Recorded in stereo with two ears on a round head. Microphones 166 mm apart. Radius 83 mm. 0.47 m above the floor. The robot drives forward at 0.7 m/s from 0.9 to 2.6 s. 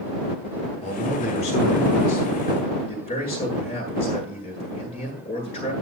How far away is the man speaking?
About 7 m.